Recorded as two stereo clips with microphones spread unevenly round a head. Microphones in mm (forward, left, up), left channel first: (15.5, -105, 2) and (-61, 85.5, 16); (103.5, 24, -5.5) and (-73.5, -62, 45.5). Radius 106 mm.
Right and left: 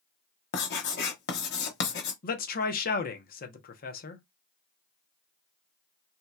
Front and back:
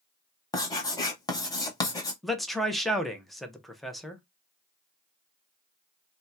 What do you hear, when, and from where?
0.5 s writing: 55° right, 0.9 m
2.2 s a man speaking: 50° right, 0.7 m